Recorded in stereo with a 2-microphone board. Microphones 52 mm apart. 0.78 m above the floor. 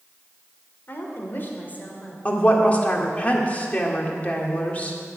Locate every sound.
0.9 s a woman speaking: 45° left (ahead or behind), 2.5 m; by 2.1 s 35° left (ahead or behind), 3 m
2.2 s a woman speaking: 30° left (ahead or behind), 1.9 m